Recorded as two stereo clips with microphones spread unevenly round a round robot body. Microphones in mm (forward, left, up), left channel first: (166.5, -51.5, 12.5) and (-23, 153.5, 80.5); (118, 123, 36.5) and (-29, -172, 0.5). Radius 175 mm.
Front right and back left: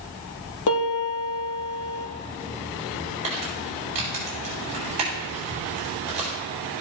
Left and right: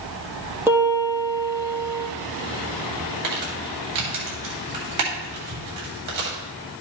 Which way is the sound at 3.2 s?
155° right.